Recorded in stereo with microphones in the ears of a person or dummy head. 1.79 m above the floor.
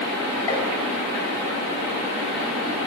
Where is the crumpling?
No crumpling in this recording.